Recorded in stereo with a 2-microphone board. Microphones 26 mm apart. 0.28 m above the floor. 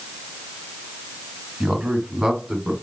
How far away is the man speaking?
About 2.0 m.